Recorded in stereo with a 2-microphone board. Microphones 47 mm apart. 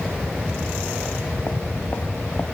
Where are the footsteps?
40° left (ahead or behind), 2.5 m; by 2.5 s 45° left (ahead or behind), 1.9 m.